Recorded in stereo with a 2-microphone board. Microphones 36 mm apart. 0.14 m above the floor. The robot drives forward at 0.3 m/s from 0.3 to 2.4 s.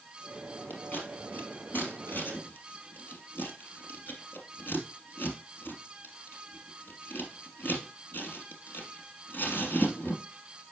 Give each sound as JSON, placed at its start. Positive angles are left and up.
{"t": 0.7, "sound": "scissors", "side_deg": 70, "distance_m": 3.0}